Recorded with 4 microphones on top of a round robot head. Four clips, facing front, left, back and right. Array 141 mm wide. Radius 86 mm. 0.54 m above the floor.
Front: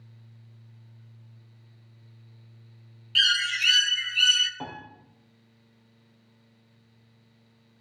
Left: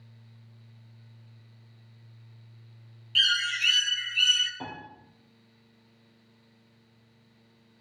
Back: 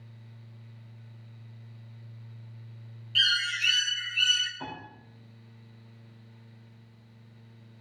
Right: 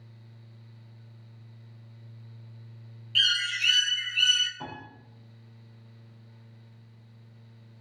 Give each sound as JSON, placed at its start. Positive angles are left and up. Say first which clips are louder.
{"t": 3.1, "sound": "a bird", "louder": "left 2 dB, front 3 dB", "azimuth_deg": 0, "distance_m": 1.1}
{"t": 4.6, "sound": "a piano", "louder": "left 1 dB, front 1 dB", "azimuth_deg": 20, "distance_m": 4.5}